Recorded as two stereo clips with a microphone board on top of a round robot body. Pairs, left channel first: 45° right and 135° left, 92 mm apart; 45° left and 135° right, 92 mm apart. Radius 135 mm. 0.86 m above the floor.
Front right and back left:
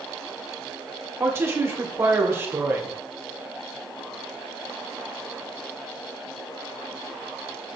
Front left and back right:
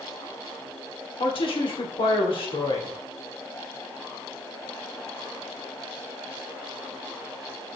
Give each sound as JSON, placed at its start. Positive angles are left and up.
{"t": 1.2, "sound": "a woman speaking", "azimuth_deg": 70, "distance_m": 2.5}